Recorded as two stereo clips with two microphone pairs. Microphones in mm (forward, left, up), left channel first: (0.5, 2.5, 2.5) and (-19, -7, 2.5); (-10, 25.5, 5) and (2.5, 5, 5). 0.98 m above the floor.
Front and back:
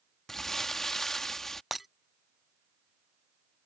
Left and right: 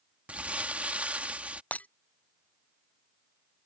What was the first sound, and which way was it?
Crumpling, 50° right.